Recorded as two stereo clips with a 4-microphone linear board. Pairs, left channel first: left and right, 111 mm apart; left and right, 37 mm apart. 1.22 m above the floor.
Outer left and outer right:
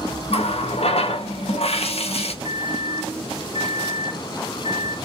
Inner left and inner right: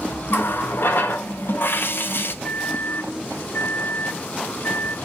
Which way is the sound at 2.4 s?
75° left (ahead or behind).